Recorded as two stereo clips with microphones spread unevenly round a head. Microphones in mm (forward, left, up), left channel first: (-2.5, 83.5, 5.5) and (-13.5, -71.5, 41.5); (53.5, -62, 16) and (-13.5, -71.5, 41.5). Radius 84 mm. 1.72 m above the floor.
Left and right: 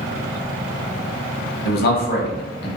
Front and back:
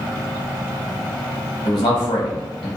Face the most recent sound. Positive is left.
turn(degrees=50)